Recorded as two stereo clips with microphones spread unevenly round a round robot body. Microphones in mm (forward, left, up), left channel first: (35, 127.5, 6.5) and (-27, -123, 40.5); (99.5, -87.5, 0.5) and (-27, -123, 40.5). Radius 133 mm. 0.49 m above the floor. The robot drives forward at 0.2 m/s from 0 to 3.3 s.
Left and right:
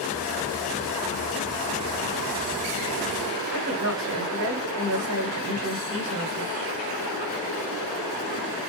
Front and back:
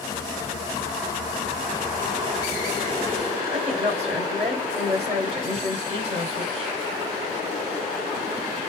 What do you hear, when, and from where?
3.5 s a woman speaking: 115° right, 1.3 m